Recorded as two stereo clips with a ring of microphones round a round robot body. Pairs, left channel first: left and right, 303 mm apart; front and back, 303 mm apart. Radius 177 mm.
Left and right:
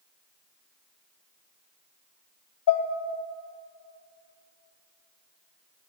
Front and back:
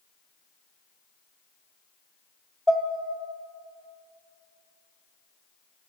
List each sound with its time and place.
2.7 s dishes clattering: 90° left, 1.0 m